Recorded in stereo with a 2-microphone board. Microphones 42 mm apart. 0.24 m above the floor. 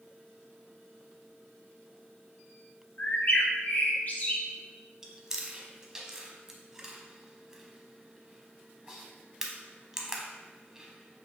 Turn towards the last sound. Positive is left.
turn(degrees=-15)  # may be behind; listen again after turning